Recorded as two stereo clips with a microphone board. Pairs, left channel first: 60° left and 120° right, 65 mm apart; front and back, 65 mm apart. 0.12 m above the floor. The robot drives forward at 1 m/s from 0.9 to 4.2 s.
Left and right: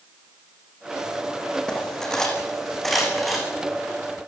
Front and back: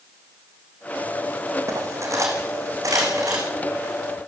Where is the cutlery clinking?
140° left, 4 m; by 3.4 s 150° left, 5.5 m.